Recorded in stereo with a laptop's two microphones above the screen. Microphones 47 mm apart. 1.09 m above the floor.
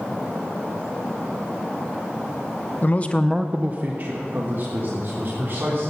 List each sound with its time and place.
2.8 s a man speaking: 40° left (ahead or behind), 0.9 m; by 5.9 s 55° right (ahead or behind), 4 m